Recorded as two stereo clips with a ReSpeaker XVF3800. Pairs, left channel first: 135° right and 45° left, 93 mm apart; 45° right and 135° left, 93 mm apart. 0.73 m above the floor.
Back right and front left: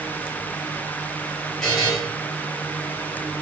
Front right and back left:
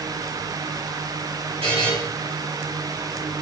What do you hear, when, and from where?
1.6 s a buzzer: 140° left, 3 m